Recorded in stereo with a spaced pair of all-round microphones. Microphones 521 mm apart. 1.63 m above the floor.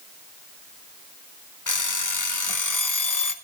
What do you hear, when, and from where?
1.7 s an alarm clock: 35° left (ahead or behind), 1.0 m